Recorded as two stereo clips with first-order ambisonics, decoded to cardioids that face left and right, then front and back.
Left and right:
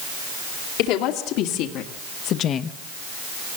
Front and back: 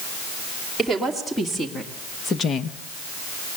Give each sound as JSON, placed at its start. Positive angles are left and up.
{"t": 0.8, "sound": "a woman speaking", "azimuth_deg": 85, "distance_m": 2.5}